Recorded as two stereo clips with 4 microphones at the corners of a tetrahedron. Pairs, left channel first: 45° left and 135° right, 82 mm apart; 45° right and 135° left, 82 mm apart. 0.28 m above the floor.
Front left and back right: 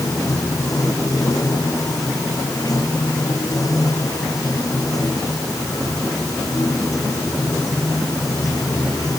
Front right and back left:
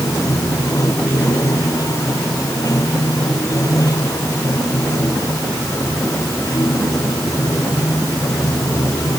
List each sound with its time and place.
0.0 s running water: straight ahead